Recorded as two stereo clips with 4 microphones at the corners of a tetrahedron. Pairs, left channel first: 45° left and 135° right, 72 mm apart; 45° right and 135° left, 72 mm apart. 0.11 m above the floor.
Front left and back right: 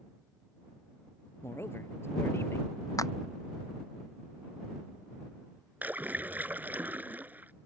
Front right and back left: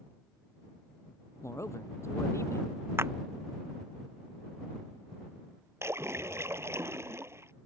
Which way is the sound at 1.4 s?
5° right.